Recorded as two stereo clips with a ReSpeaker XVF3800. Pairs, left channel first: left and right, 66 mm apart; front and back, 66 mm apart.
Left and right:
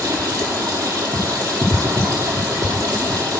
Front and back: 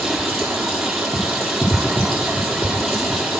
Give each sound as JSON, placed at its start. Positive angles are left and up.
{"t": 0.0, "sound": "running water", "azimuth_deg": -90, "distance_m": 3.0}